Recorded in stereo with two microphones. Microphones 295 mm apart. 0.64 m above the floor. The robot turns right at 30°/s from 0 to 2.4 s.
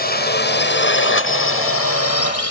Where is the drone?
30° left (ahead or behind); by 2.5 s 55° left (ahead or behind).